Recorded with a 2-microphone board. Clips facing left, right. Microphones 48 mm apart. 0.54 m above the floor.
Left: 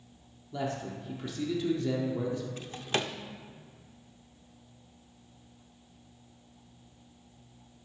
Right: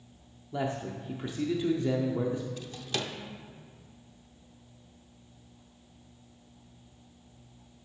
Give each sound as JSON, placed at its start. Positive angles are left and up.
{"t": 0.5, "sound": "a man speaking", "side_deg": -25, "distance_m": 0.8}
{"t": 2.6, "sound": "a drawer", "side_deg": 35, "distance_m": 0.6}